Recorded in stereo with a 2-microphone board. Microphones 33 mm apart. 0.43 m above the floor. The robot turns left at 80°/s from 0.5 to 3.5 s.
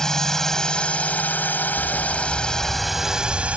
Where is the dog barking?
85° left; by 3.6 s 55° right.